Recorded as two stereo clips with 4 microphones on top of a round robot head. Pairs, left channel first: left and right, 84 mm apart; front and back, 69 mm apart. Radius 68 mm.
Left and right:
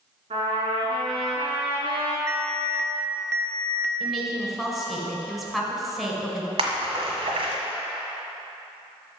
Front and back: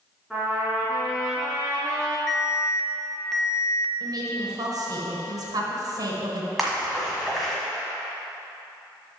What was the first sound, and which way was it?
A trumpet, 90° right.